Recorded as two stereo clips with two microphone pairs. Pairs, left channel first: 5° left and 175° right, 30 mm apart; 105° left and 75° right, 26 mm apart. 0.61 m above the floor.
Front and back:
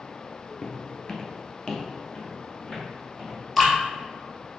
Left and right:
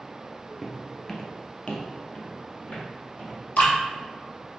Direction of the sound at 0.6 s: 20° right.